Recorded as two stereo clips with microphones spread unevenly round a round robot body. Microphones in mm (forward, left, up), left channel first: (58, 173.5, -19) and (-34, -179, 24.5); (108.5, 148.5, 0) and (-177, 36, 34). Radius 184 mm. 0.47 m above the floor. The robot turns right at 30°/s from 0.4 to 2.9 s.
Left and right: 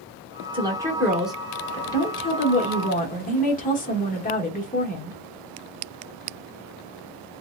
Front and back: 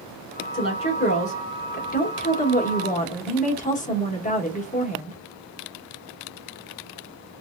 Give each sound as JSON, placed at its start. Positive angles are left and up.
{"t": 0.5, "sound": "a woman speaking", "azimuth_deg": -30, "distance_m": 1.0}